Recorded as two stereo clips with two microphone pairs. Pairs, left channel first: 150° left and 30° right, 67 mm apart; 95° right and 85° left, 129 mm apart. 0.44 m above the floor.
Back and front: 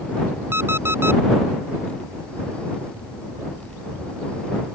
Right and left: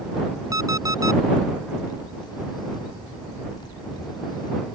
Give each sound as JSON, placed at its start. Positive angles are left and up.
{"t": 0.5, "sound": "an alarm clock", "azimuth_deg": 25}